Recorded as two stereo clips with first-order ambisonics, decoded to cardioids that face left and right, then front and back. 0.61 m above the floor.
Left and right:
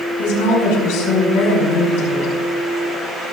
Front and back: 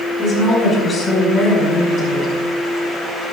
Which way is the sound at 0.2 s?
75° left.